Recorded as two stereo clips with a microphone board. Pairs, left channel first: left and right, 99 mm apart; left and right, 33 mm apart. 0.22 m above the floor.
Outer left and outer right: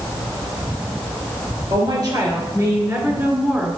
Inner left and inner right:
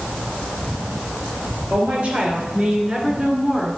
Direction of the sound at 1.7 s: 45° right (ahead or behind).